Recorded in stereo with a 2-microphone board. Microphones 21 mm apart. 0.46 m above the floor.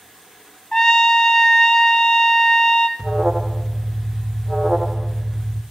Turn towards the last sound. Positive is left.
turn(degrees=-40)  # may be behind; listen again after turning